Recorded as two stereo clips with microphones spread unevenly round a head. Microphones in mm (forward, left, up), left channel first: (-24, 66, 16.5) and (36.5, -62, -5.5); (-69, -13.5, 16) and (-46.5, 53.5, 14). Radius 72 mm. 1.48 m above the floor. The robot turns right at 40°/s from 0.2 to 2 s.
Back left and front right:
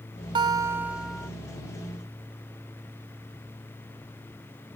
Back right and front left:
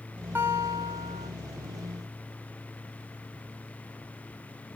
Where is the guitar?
5° right, 0.5 m; by 1.3 s 35° left, 0.5 m.